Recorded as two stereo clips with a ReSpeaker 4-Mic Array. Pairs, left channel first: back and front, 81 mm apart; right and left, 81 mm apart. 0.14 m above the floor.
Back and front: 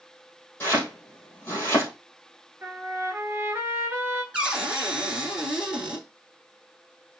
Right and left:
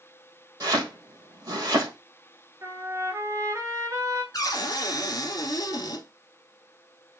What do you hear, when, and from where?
0.6 s chopping: 120° left, 2.5 m
2.6 s a trumpet: 55° left, 1.1 m
4.3 s a cupboard door: 75° right, 1.3 m